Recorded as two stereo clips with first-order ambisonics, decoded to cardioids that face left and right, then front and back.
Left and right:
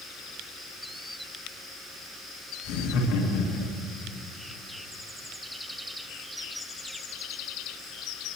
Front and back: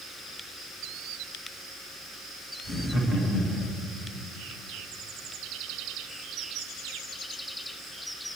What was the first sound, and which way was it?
Laughter, 70° left.